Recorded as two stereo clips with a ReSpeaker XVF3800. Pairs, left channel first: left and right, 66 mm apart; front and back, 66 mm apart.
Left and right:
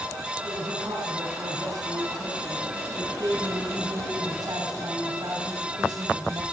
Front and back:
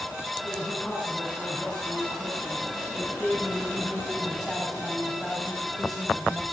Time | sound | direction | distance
0.5 | a man speaking | 85° right | 6 m